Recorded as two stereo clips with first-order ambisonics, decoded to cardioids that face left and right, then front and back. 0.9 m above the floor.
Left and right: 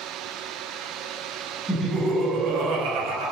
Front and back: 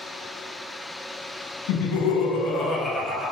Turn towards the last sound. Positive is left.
turn(degrees=-100)